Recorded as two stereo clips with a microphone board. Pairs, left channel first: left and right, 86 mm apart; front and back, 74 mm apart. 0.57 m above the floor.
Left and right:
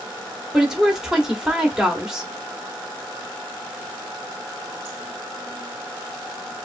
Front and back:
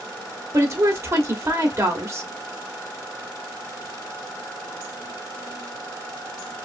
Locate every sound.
0.5 s a woman speaking: 170° right, 1.0 m